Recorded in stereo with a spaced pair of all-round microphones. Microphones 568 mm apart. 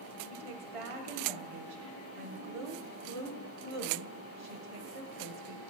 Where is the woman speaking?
65° right (ahead or behind), 0.8 m.